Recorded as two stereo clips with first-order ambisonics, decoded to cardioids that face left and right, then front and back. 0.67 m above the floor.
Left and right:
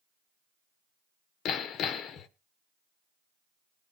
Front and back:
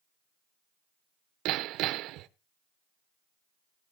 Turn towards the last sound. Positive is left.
turn(degrees=145)